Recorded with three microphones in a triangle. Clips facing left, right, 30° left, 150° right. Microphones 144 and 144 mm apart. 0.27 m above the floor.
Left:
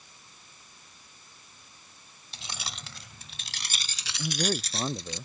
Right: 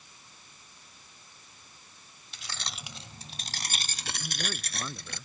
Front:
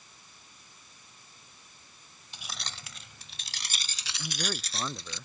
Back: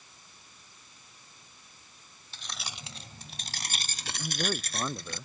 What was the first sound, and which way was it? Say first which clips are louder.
Keys jangling: left 1 dB, even; 90° left.